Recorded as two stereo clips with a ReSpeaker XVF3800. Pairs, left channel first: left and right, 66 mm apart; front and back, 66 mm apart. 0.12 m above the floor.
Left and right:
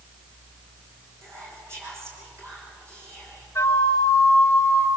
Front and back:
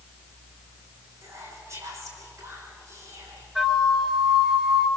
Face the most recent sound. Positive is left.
turn(degrees=95)